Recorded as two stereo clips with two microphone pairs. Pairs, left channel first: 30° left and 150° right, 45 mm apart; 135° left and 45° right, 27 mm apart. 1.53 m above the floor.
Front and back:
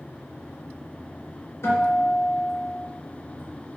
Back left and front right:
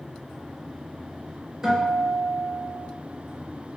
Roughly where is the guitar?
Ahead left.